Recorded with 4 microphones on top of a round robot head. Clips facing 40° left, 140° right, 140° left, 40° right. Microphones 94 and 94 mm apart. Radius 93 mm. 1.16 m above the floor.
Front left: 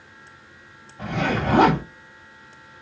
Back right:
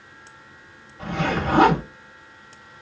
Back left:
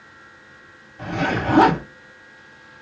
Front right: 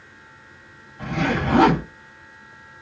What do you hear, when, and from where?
1.0 s a zipper: 75° left, 1.2 m